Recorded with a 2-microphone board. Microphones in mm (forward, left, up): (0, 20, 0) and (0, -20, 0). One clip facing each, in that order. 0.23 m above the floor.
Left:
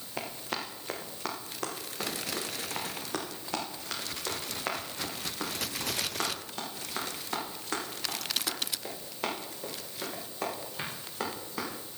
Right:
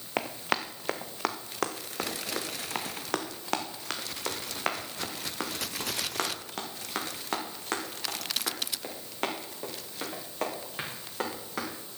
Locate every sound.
0.2 s running footsteps: 85° right, 1.6 m; by 11.8 s 65° right (ahead or behind), 7.5 m